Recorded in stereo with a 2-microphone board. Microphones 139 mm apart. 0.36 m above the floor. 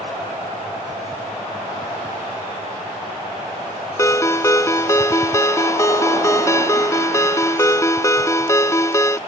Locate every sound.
4.0 s a ringtone: 20° left (ahead or behind)